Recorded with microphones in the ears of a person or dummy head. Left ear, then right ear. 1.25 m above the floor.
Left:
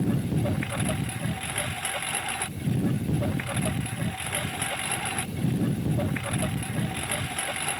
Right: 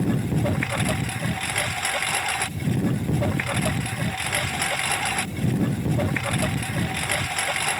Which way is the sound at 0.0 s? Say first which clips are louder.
Right 3 dB; 25° right (ahead or behind).